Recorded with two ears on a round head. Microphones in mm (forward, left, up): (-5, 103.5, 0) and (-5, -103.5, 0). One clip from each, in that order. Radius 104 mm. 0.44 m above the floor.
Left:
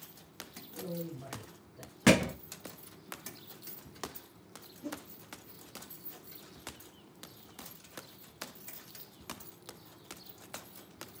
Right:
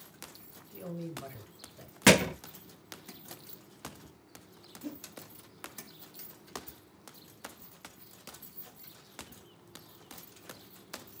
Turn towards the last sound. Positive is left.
turn(degrees=-20)  # may be behind; listen again after turning